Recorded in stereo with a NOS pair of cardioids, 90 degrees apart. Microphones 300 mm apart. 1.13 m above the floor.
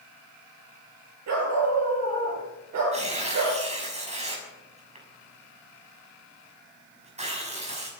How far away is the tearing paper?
About 6 m.